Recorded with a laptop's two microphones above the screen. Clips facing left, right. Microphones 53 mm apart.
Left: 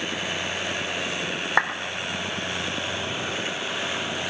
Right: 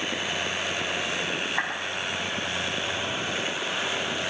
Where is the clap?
70° left (ahead or behind), 2.5 m.